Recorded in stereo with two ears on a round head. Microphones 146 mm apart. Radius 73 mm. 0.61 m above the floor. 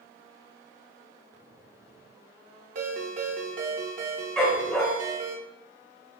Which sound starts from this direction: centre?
A dog barking, at 4.4 s.